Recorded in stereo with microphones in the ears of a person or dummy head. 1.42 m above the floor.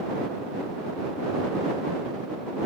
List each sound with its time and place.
Only background noise.